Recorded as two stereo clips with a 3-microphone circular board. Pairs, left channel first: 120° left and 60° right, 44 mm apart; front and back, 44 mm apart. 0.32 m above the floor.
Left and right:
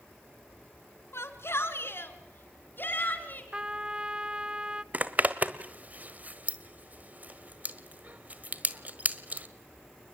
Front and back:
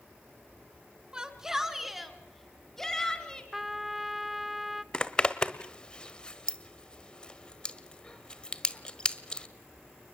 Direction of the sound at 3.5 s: 100° right.